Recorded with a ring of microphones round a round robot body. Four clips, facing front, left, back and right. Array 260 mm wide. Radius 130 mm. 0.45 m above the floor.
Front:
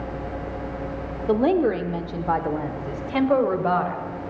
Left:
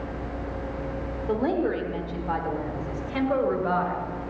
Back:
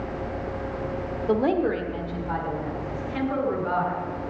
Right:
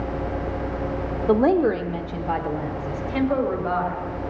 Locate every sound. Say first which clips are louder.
1.3 s a woman speaking: right 7 dB, front 3 dB; 75° right, 1.0 m; by 4.1 s 5° left, 2 m